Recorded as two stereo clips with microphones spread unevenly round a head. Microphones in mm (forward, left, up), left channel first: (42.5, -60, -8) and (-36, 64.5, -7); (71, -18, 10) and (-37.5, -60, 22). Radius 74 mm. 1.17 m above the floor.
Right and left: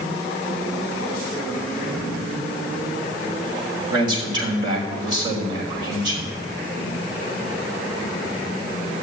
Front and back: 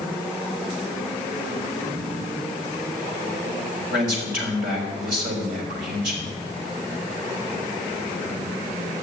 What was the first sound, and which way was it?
A man speaking, 175° right.